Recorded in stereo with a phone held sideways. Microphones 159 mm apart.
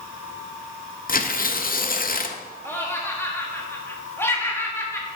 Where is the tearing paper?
65° left (ahead or behind), 0.5 m.